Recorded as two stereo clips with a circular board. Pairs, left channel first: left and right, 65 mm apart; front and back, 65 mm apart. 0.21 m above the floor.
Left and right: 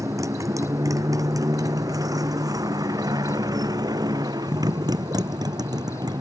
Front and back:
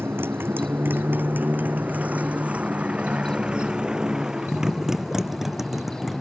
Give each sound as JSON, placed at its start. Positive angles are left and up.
{"t": 0.0, "sound": "a motorcycle", "azimuth_deg": -125}